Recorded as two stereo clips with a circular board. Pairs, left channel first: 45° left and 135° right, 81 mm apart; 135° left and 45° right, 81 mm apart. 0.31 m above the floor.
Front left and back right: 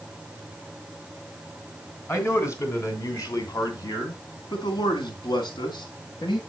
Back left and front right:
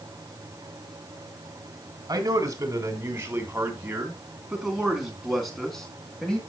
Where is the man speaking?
10° right, 3.5 m; by 6.4 s 55° left, 4.5 m.